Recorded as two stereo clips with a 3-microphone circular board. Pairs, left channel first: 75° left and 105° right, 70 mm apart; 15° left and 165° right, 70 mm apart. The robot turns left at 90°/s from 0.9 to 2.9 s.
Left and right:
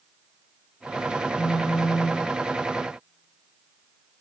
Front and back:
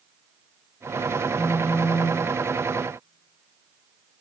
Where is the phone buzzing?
110° left, 2 m; by 2.3 s 30° left, 2 m.